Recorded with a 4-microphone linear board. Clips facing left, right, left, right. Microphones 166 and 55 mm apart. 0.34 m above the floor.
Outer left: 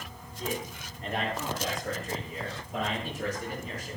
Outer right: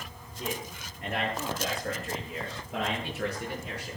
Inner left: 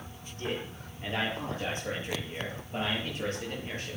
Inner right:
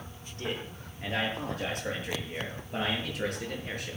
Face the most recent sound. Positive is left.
turn(degrees=-70)  # may be behind; listen again after turning